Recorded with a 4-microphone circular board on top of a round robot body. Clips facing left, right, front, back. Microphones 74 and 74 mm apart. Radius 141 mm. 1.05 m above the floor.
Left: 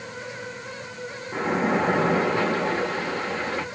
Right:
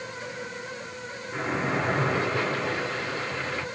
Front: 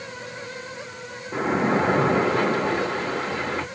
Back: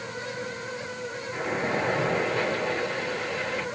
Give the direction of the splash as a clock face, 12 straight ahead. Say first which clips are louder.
Left 5 dB, front 7 dB; 11 o'clock.